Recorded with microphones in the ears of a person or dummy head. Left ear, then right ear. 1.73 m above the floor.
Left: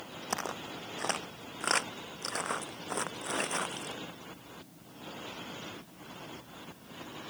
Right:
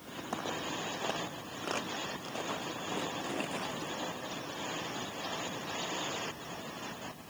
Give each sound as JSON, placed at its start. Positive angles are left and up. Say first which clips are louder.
{"t": 0.3, "sound": "footsteps", "louder": "even", "side_deg": 65}